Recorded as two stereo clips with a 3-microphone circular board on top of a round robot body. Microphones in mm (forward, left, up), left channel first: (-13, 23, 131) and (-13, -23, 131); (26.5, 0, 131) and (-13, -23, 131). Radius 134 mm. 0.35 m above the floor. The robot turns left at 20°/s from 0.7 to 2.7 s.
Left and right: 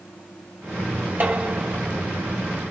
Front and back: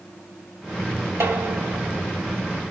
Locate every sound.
1.2 s dishes clattering: 135° right, 2 m; by 2.0 s 150° right, 2 m